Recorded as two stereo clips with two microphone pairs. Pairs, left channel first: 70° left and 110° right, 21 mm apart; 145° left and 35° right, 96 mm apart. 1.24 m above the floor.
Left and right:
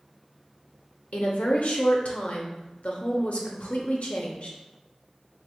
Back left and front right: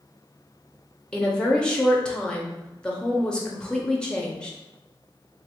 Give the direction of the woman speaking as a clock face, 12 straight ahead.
10 o'clock.